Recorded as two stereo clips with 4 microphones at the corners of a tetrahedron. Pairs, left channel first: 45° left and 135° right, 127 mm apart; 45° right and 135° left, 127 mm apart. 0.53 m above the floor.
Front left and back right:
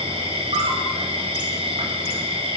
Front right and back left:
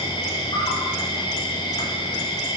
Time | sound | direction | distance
0.0 | an insect | 95° right | 5.5 m